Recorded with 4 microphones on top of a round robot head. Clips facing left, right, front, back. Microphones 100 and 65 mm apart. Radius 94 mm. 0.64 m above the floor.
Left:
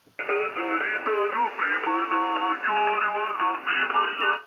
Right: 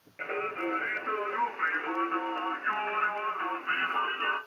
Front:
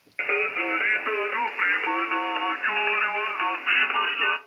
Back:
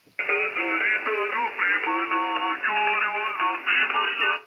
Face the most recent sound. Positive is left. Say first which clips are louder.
# left 6 dB, even
turn(degrees=90)